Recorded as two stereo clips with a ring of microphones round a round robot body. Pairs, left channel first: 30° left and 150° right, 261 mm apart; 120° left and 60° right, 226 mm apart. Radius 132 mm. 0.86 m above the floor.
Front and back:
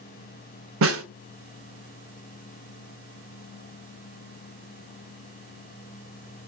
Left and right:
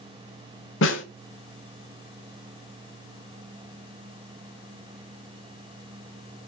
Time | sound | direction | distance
0.8 | a snare drum | 170° left | 1.7 m